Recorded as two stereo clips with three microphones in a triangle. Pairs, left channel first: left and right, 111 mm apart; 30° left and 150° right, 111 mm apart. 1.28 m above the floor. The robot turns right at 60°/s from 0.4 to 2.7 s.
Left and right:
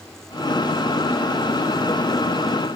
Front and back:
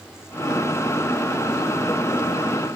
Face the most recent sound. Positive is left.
No sound to turn to.